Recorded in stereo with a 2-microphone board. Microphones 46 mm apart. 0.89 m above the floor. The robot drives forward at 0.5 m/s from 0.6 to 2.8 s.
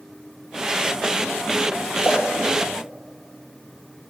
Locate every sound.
2.0 s a splash: 50° left (ahead or behind), 1.5 m; by 3.8 s 40° left (ahead or behind), 1.7 m